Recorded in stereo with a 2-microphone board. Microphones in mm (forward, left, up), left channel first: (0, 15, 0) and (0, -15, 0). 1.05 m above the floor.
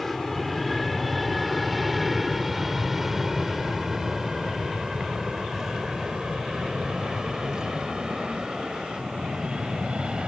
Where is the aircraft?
5° left (ahead or behind); by 10.3 s 30° right (ahead or behind).